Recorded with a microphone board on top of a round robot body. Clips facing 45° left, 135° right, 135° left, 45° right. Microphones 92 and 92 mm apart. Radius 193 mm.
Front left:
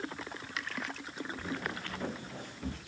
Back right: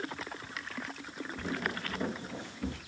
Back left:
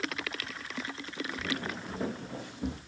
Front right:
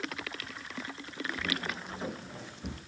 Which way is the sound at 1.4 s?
130° right.